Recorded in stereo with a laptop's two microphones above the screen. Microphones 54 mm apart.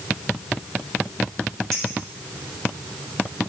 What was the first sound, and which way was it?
A clink, 10° left (ahead or behind).